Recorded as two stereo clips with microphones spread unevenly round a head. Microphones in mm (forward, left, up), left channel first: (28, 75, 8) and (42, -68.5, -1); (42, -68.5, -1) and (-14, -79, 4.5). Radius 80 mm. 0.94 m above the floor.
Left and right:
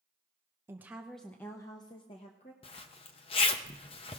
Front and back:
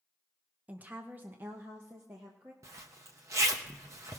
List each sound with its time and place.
0.7 s a woman speaking: 125° right, 0.7 m; by 2.5 s 135° left, 1.1 m
2.6 s a zipper: 150° left, 0.7 m